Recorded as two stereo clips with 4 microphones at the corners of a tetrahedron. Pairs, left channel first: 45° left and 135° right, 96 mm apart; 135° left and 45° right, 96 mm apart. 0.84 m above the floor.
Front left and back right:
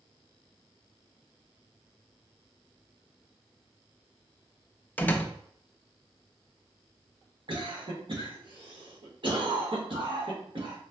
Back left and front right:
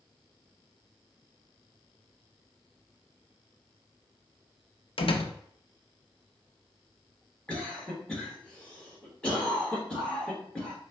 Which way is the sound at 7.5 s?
150° right.